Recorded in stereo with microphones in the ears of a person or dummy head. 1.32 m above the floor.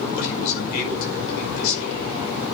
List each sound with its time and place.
0.2 s a man speaking: 55° left (ahead or behind), 5.5 m